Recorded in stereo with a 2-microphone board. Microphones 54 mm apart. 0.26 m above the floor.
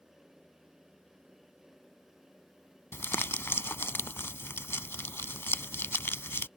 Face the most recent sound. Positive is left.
turn(degrees=50)  # may be behind; listen again after turning